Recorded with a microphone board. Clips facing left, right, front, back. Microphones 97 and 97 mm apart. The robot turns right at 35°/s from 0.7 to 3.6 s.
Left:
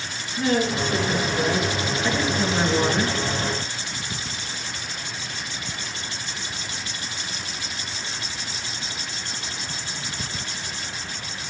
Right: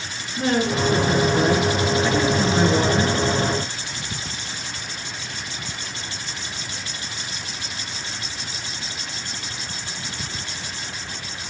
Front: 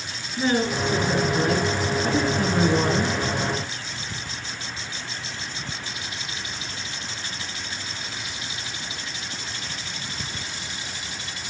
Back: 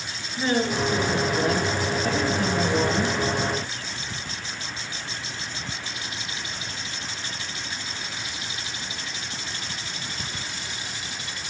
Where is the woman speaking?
65° right, 2 m; by 3.2 s 20° left, 2 m.